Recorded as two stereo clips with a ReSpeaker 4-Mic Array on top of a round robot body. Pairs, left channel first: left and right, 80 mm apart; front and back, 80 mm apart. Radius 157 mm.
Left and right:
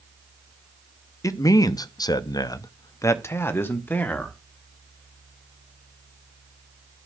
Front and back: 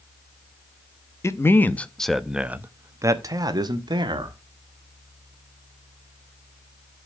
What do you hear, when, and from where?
1.2 s a man speaking: 50° left, 1.1 m; by 4.4 s 160° left, 1.6 m